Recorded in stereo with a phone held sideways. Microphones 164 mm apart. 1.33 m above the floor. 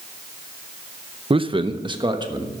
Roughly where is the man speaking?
Right.